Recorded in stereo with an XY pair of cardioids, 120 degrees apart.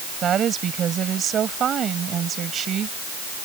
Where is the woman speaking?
45° right.